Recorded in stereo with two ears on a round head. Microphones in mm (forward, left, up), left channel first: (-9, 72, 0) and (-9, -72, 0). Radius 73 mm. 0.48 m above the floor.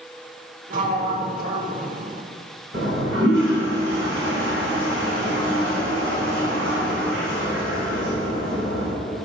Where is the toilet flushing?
75° right (ahead or behind), 3.5 m.